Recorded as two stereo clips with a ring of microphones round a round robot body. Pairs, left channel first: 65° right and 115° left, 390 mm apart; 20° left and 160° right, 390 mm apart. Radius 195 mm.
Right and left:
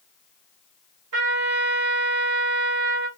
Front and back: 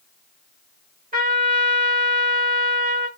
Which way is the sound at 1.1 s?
140° left.